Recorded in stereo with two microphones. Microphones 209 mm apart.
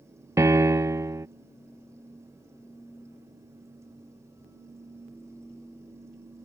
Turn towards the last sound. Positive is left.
turn(degrees=-15)  # may be behind; listen again after turning